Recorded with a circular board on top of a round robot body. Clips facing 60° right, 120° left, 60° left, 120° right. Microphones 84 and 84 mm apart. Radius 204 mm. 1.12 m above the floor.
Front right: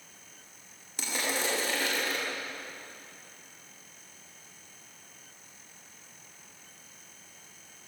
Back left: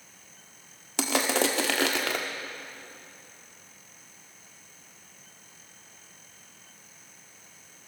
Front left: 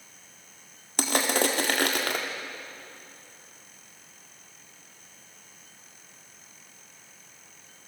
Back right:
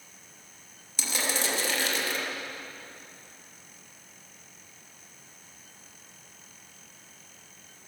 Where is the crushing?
100° left, 1.9 m.